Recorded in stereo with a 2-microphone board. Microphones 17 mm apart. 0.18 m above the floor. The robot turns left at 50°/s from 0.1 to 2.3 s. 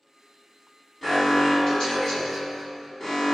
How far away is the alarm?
About 1.7 m.